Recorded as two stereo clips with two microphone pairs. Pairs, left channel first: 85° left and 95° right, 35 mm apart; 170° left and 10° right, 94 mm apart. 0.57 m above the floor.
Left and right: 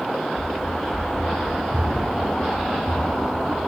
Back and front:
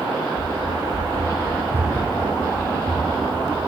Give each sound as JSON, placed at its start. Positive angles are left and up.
{"t": 0.4, "sound": "running footsteps", "azimuth_deg": 20, "distance_m": 0.8}